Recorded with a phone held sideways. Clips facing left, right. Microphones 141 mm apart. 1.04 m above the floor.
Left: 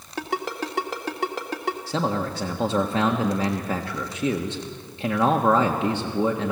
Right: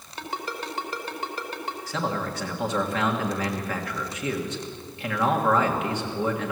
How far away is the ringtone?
About 2 m.